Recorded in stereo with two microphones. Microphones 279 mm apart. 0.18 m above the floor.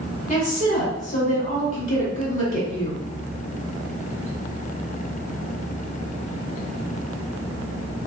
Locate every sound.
0.3 s a woman speaking: 30° left (ahead or behind), 1.9 m